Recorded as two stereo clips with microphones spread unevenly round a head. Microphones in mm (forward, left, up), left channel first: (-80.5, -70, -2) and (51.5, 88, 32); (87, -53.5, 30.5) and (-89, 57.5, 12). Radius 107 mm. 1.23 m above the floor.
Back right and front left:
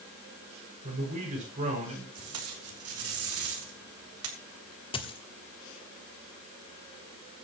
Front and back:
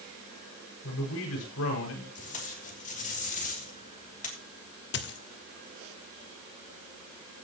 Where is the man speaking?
10° right, 6.5 m.